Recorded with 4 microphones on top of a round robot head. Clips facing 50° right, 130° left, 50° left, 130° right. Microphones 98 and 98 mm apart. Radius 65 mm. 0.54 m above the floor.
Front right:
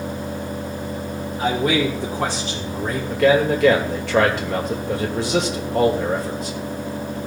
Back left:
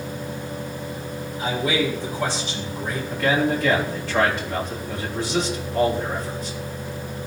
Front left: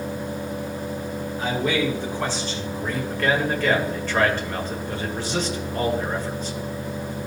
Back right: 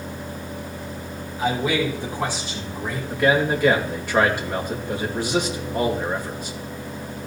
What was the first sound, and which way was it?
A man speaking, 55° right.